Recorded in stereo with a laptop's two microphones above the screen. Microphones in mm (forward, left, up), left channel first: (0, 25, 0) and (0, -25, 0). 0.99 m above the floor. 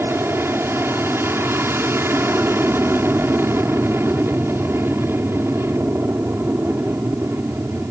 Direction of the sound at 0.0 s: 50° right (ahead or behind).